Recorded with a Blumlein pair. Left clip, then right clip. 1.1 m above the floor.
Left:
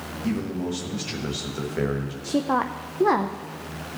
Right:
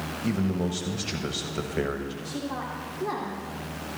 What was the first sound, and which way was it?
A man speaking, 5° right.